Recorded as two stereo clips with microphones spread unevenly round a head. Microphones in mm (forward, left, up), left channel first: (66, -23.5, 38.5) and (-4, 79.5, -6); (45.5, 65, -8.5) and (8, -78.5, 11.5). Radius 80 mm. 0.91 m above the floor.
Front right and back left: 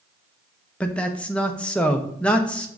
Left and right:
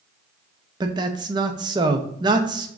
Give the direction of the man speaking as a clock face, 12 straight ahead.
5 o'clock.